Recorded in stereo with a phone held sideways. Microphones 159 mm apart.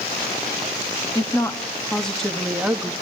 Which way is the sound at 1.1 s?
20° left (ahead or behind).